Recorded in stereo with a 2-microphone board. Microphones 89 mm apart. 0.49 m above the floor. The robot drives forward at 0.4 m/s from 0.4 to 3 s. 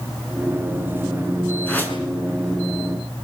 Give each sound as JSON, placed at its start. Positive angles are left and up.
{"t": 1.7, "sound": "a whoosh", "side_deg": 20, "distance_m": 6.0}